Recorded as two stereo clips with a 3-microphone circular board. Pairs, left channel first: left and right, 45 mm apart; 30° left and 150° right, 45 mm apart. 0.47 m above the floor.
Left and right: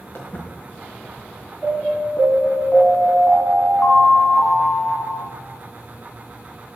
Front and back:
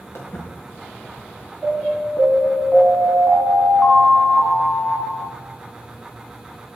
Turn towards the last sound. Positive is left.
turn(degrees=95)